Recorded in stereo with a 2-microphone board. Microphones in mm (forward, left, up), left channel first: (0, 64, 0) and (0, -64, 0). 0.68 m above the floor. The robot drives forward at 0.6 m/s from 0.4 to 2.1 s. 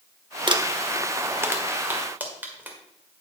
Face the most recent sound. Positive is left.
turn(degrees=-15)  # may be behind; listen again after turning